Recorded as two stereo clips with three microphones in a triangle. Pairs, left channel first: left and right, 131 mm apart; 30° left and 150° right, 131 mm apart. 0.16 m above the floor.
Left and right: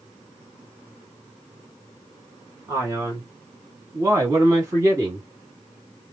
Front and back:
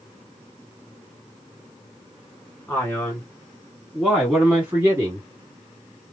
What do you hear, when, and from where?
2.7 s a man speaking: 40° right, 1.9 m; by 5.3 s 130° right, 1.6 m